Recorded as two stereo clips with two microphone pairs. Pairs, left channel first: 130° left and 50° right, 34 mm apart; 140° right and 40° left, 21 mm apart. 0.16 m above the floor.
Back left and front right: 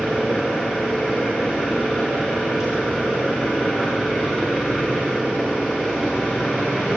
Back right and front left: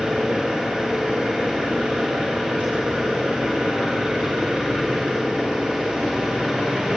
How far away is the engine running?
About 8.5 m.